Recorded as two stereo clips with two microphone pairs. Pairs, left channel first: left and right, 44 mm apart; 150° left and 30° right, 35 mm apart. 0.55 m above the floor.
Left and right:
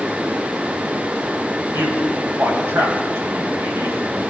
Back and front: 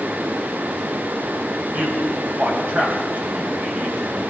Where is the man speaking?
75° right, 3.5 m.